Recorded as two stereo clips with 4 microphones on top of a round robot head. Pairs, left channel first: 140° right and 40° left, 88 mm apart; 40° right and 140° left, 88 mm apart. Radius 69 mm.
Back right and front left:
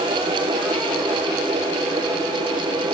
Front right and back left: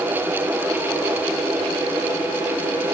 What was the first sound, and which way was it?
Only background noise.